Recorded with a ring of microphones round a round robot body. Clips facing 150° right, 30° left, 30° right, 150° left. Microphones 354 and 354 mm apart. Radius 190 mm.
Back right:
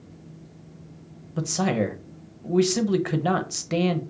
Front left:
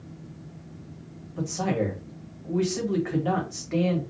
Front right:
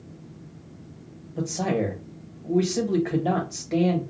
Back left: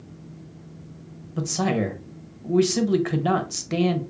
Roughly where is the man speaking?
Behind right.